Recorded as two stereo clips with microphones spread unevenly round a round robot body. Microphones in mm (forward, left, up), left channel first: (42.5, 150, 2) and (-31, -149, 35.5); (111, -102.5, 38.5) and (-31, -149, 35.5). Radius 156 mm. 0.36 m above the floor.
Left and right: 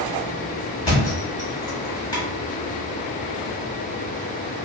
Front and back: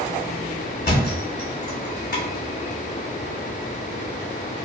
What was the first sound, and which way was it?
A thud, straight ahead.